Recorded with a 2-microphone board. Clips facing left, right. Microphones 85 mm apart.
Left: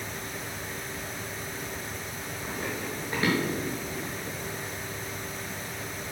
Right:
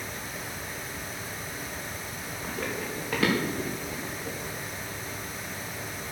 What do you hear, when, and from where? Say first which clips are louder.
2.4 s running footsteps: right 1 dB; 80° right, 5 m; by 4.3 s 85° right, 7 m